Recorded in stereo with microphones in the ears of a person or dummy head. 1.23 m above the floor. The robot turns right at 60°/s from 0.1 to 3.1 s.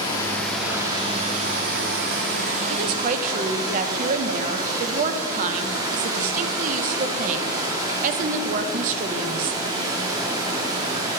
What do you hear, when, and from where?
0.0 s running water: 155° left, 1.0 m; by 11.2 s 25° right, 1.0 m
2.7 s a woman speaking: 65° right (ahead or behind), 0.7 m; by 9.6 s 40° right (ahead or behind), 0.7 m